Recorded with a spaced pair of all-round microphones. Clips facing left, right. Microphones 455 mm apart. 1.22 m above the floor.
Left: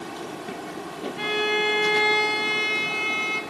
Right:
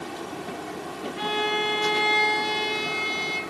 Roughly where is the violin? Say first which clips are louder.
Left 3 dB; left.